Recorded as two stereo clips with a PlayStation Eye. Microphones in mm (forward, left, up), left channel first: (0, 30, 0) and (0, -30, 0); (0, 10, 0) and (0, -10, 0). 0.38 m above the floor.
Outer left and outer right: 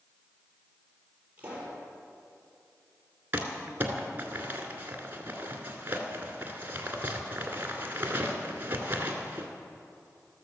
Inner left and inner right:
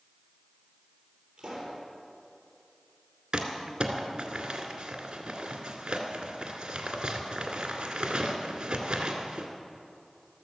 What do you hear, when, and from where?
1.4 s a pop: 20° right (ahead or behind), 6.5 m
3.3 s crumpling: 30° right (ahead or behind), 2 m